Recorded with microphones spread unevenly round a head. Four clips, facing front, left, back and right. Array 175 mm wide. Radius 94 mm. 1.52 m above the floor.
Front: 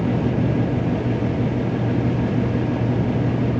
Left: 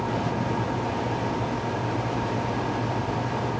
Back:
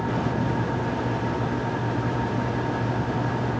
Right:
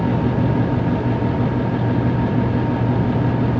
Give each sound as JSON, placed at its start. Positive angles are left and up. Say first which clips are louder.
{"t": 0.0, "sound": "a fan", "louder": "right 7 dB, front 4 dB", "azimuth_deg": -70, "distance_m": 0.7}